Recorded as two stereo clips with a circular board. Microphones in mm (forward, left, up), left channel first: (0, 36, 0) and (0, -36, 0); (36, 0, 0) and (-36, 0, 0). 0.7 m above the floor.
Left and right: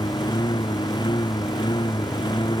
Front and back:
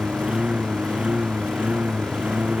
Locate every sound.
0.0 s a lawn mower: 105° left